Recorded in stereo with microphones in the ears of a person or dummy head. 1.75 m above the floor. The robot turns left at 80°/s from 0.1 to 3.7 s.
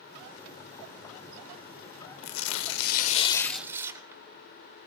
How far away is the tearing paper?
About 0.6 m.